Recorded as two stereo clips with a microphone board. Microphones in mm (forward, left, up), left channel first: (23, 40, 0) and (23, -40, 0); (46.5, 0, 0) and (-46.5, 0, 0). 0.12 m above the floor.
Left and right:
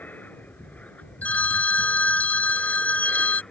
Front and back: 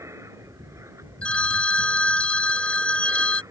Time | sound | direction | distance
0.0 | an aircraft | 145° left | ?
1.2 | a phone ringing | 55° left | ?